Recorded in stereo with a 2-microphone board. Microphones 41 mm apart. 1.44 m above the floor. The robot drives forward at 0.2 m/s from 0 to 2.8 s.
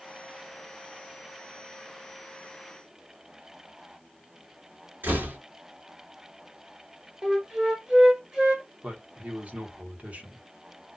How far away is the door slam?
About 1.7 m.